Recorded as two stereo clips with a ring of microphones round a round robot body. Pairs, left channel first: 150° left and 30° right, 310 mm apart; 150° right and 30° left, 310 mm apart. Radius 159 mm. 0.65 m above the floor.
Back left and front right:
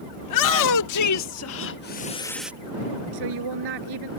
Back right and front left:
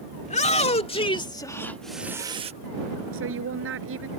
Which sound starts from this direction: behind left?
A shout, at 0.2 s.